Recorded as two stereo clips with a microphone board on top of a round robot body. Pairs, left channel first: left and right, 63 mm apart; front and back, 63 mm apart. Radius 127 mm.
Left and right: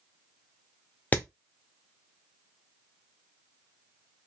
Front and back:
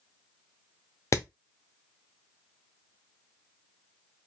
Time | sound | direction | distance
1.1 | hammering | 30° left | 0.8 m